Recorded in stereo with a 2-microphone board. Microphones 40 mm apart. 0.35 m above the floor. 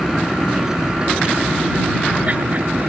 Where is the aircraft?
Centre (ahead or behind); by 2.9 s 40° right (ahead or behind).